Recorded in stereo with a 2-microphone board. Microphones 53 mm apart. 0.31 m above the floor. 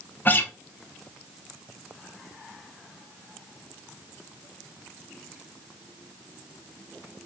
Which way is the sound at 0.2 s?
35° left (ahead or behind).